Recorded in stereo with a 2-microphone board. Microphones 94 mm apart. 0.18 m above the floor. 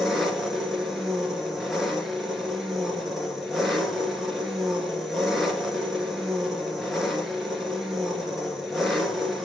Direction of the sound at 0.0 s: Centre (ahead or behind).